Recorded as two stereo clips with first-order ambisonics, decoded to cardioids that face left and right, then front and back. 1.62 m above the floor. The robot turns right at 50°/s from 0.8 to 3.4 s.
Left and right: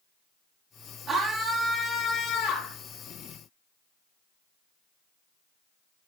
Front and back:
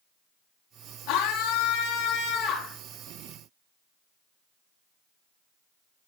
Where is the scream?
25° right, 3 m; by 2.8 s 60° left, 3 m.